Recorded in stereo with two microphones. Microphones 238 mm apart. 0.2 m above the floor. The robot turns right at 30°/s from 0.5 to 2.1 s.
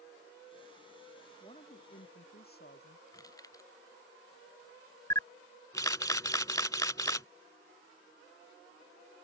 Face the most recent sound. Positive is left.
turn(degrees=15)  # may be behind; listen again after turning